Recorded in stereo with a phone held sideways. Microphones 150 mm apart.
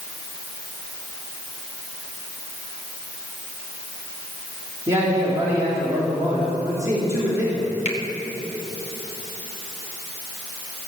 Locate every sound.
4.9 s a man speaking: 20° right (ahead or behind), 3.5 m
7.8 s a finger snap: 45° left (ahead or behind), 1.8 m